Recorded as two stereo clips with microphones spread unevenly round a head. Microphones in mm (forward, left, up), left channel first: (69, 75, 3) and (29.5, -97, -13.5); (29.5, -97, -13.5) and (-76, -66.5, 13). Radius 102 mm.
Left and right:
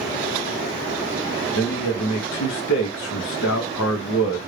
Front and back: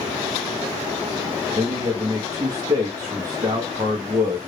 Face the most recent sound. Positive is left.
turn(degrees=95)